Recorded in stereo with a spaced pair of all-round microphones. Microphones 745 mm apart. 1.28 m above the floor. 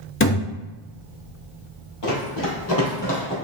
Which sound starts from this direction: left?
Running footsteps, at 2.0 s.